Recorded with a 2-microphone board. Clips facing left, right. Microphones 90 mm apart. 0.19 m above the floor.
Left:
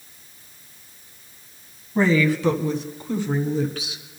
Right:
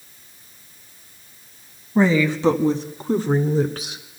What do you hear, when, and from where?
1.9 s a woman speaking: 20° right (ahead or behind), 1.0 m; by 4.0 s 50° right (ahead or behind), 1.8 m